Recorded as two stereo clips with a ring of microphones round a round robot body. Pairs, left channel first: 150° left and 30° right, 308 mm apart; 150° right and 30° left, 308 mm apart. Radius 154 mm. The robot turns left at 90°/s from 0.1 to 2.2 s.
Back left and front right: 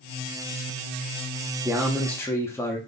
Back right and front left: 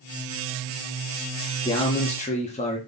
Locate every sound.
1.6 s a man speaking: 95° right, 1.0 m; by 2.8 s 140° right, 1.0 m